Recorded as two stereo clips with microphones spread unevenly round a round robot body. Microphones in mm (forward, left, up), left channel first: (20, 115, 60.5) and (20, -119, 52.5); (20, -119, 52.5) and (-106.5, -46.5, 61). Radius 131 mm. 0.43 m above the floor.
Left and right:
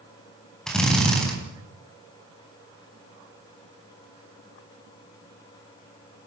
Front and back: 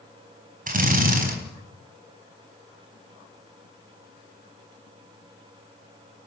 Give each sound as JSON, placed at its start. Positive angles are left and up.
{"t": 0.7, "sound": "a drill", "azimuth_deg": 180, "distance_m": 4.5}